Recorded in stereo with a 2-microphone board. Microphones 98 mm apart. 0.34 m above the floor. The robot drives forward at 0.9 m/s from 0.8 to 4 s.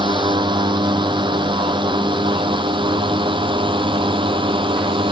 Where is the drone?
55° right (ahead or behind); by 5.1 s 60° right (ahead or behind).